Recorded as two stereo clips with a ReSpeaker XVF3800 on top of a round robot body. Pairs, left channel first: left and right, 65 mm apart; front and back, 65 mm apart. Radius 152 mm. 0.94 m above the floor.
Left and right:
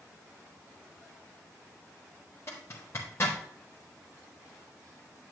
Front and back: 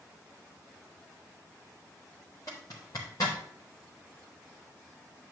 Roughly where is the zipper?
Ahead left.